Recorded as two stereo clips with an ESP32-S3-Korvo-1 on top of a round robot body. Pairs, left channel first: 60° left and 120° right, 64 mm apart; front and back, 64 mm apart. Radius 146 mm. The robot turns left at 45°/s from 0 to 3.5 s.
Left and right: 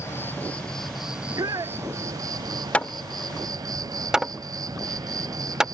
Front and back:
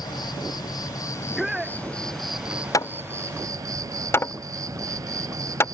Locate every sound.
0.0 s an insect: 10° left; by 5.8 s 145° right
1.1 s a shout: 80° right; by 1.8 s 110° right
2.7 s hammering: 5° right; by 5.7 s 40° right